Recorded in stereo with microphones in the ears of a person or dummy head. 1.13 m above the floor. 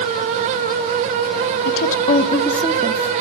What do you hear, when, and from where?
1.6 s a woman speaking: 50° left (ahead or behind), 1.5 m; by 3.1 s 40° right (ahead or behind), 1.1 m